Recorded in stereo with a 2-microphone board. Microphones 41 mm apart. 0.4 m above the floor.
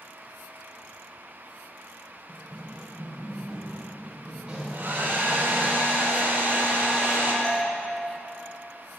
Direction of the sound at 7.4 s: 20° left (ahead or behind).